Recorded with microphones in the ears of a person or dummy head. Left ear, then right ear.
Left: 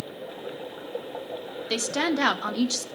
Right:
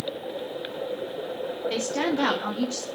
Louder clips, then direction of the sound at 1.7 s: Left 3 dB; 85° left.